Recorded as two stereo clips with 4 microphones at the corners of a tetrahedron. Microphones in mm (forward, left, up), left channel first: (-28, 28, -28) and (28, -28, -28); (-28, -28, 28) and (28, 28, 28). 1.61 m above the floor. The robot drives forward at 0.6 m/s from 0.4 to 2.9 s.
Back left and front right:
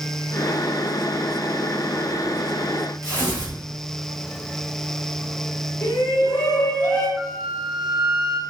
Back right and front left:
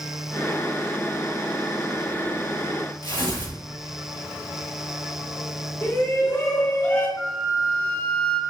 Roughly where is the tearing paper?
Behind.